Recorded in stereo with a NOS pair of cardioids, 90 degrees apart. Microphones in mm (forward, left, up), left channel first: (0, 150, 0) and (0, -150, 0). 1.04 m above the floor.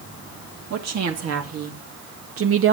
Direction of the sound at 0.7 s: 60° right.